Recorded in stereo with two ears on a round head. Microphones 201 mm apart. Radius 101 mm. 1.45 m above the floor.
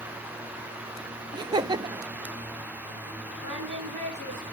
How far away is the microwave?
No microwave in this recording.